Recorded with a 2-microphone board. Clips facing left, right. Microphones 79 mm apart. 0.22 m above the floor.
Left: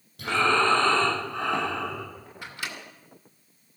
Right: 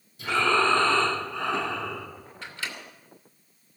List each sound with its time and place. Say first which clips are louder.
0.2 s breathing: even; 60° left (ahead or behind), 9 m
2.4 s a microwave: even; 15° left (ahead or behind), 2.5 m